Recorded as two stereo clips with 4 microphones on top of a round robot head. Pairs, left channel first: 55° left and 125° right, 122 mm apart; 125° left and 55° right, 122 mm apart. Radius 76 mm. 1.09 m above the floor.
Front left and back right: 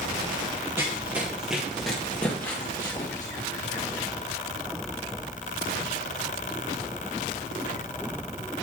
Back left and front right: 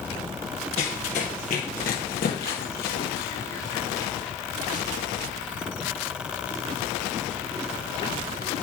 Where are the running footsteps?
165° left, 1.8 m; by 4.1 s 110° left, 2.5 m.